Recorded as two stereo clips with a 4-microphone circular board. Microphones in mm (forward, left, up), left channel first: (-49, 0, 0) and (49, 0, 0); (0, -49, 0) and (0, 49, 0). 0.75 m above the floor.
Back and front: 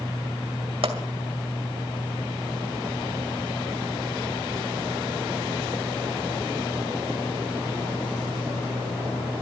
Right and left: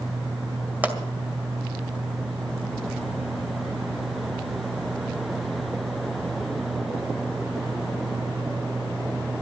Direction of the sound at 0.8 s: 15° left.